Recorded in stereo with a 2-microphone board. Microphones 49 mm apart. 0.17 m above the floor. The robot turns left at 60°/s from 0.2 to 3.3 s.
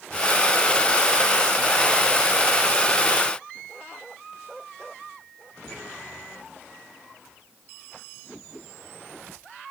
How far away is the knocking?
I don't hear knocking.